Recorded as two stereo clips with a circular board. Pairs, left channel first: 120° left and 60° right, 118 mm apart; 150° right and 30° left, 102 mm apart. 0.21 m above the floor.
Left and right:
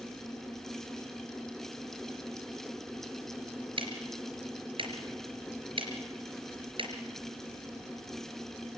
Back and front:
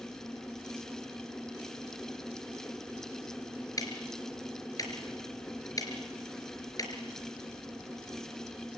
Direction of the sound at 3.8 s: 95° right.